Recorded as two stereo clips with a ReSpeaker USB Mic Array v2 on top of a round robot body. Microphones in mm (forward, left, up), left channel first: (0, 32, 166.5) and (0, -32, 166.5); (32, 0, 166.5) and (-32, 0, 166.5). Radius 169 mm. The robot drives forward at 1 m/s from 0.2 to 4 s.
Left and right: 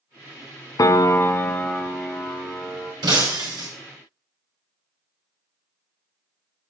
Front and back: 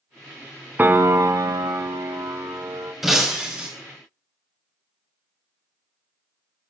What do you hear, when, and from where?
0.8 s a piano: 115° left, 0.6 m; by 2.9 s 170° left, 2.5 m
3.0 s breaking glass: 90° right, 2 m; by 3.7 s 110° right, 2.5 m